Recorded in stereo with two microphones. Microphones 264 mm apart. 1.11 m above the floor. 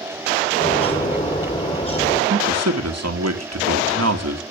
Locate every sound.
0.6 s a bird: 20° left (ahead or behind), 3.5 m
2.3 s a man speaking: 75° right (ahead or behind), 2 m